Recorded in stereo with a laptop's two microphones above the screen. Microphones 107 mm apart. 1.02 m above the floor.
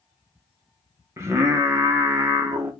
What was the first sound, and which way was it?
Singing, 25° right (ahead or behind).